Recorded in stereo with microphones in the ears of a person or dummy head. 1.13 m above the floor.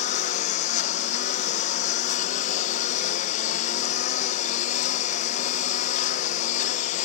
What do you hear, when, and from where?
0.0 s a lawn mower: 50° left (ahead or behind)